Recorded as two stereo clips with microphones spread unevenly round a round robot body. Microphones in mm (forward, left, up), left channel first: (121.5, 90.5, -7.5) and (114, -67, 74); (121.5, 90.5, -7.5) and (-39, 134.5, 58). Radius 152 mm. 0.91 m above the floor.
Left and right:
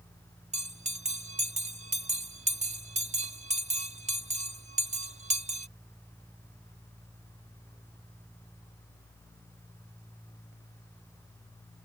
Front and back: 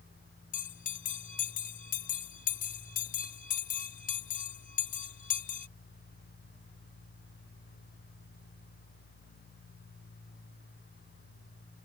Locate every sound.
0.5 s a bell: 35° right